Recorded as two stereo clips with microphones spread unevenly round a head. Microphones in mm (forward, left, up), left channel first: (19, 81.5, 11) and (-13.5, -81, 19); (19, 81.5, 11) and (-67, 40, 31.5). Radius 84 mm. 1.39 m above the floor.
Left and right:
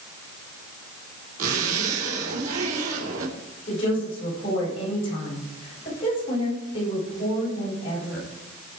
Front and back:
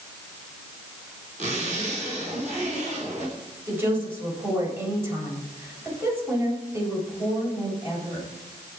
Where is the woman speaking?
140° left, 8 m.